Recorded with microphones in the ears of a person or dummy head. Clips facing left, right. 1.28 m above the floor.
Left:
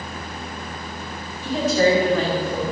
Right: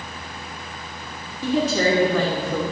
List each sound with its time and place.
1.4 s a woman speaking: 70° right (ahead or behind), 3 m